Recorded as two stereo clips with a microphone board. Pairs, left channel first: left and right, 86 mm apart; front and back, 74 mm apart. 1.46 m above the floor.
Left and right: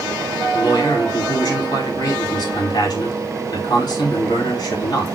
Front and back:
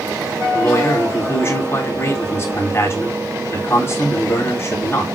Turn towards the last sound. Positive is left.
turn(degrees=55)